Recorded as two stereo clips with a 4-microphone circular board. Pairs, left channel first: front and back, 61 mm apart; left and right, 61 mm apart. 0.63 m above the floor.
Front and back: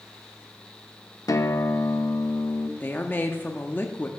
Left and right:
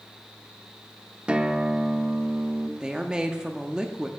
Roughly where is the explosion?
No explosion in this recording.